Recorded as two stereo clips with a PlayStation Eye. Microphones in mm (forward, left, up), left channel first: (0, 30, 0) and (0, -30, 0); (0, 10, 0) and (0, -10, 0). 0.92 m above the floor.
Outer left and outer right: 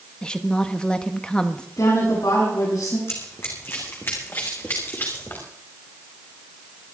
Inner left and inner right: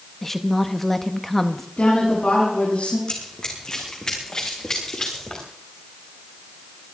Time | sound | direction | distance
0.2 | a woman speaking | 15° left (ahead or behind) | 1.1 m
1.8 | a woman speaking | 85° left | 8.5 m
3.1 | running footsteps | 45° left (ahead or behind) | 3.5 m